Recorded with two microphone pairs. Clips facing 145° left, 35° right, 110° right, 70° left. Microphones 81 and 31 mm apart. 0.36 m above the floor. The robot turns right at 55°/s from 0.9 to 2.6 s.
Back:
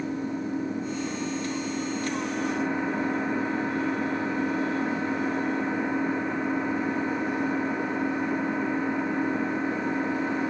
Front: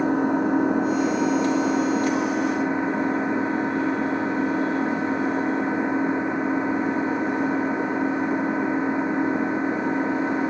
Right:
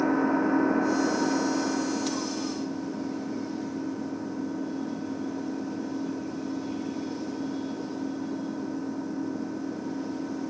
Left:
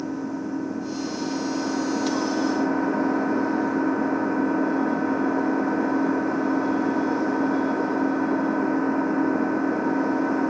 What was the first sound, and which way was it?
An engine running, 55° right.